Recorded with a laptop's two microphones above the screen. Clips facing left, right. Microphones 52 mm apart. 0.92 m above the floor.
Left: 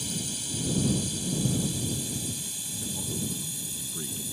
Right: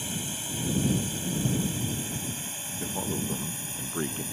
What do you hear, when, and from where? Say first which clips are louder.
0.0 s a drone: right 1 dB; 30° right (ahead or behind); by 4.3 s 45° right (ahead or behind)
2.8 s a man speaking: right 3 dB; 55° right (ahead or behind)